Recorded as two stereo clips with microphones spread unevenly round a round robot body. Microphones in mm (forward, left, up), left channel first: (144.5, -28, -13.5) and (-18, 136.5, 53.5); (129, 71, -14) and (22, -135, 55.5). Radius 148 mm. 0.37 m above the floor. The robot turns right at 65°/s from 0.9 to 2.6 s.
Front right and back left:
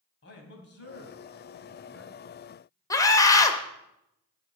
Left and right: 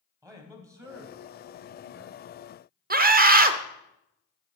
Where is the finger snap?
I don't hear a finger snap.